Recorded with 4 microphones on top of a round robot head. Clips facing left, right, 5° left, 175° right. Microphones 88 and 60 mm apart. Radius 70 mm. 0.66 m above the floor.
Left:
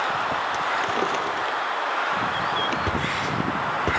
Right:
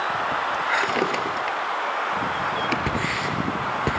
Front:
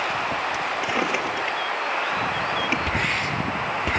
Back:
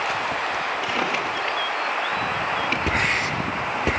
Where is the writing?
120° right, 8.5 m.